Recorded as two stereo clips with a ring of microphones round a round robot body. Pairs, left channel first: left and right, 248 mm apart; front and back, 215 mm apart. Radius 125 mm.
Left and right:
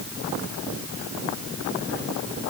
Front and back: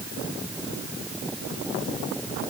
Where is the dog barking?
I don't hear a dog barking.